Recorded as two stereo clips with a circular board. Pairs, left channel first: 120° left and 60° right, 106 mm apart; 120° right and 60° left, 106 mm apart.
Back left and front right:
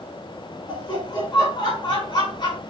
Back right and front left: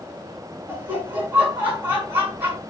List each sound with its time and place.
0.7 s laughter: 125° left, 1.7 m